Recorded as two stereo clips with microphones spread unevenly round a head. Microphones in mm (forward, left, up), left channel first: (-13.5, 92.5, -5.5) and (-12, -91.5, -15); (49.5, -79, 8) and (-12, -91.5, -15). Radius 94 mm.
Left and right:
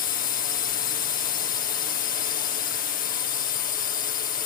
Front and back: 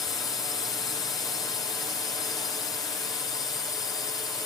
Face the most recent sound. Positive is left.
turn(degrees=55)